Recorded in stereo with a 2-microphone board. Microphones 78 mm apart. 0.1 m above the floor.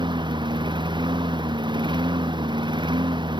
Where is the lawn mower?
80° right.